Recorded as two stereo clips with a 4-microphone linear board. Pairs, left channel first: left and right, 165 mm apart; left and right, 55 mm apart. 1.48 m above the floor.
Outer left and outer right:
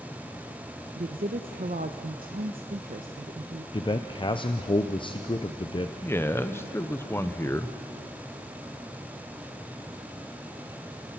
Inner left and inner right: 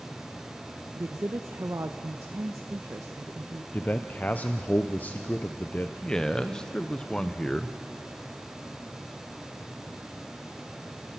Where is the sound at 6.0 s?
15° left (ahead or behind), 0.9 m.